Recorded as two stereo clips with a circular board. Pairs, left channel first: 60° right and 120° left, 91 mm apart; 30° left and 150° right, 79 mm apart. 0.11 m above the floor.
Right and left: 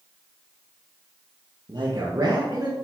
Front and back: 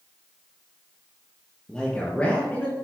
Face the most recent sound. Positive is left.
turn(degrees=85)